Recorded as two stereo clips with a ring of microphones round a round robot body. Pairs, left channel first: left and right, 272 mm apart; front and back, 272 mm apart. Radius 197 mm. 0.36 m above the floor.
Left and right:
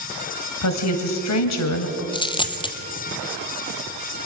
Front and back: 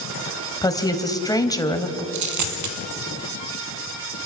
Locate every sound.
0.6 s a woman speaking: 75° left, 2 m
2.1 s a dropped coin: 165° left, 1.7 m